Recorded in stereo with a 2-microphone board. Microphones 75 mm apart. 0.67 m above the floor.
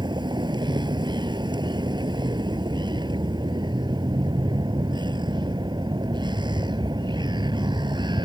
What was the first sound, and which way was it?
A vehicle, 90° right.